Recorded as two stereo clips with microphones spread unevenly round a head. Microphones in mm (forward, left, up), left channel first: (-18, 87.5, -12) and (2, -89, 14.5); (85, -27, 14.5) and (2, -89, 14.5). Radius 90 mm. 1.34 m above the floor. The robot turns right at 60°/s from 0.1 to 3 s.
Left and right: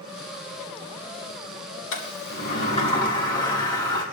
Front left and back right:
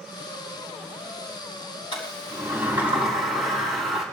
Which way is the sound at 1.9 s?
100° left.